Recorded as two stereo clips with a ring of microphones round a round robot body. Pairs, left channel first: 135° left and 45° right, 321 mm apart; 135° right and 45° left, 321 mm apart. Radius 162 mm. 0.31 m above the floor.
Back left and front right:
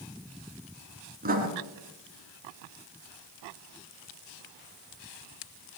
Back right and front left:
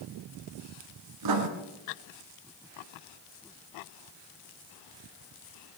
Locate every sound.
1.2 s writing: 20° left, 2 m